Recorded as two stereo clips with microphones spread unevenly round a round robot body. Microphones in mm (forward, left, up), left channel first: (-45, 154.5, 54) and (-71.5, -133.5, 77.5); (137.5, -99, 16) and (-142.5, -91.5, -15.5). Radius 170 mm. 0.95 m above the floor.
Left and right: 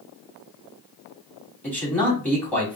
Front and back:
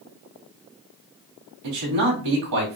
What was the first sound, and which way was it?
A man speaking, 170° left.